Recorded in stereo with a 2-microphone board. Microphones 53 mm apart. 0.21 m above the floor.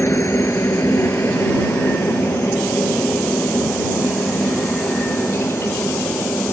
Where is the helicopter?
55° left (ahead or behind); by 6.5 s 60° left (ahead or behind).